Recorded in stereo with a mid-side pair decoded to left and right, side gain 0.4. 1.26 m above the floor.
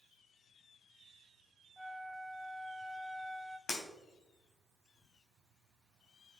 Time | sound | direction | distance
1.8 | a flute | 10° right | 0.7 m
3.7 | breaking glass | 50° left | 3.5 m